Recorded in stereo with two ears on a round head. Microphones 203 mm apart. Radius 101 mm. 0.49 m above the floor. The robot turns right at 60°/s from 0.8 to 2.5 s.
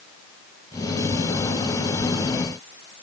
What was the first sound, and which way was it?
Only background noise.